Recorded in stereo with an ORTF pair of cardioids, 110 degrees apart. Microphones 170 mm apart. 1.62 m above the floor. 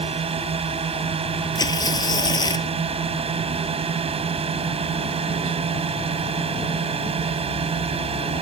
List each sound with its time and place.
0.0 s a drone: 35° right
1.6 s tearing paper: 20° left